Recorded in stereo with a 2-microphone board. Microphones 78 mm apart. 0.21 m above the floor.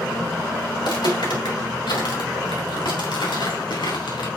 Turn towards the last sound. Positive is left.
turn(degrees=85)